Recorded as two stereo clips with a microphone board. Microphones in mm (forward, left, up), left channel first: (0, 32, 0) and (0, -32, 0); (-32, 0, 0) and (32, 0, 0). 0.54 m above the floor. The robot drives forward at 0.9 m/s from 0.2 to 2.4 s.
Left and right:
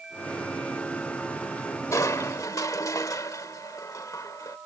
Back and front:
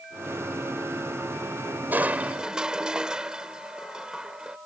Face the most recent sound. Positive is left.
turn(degrees=75)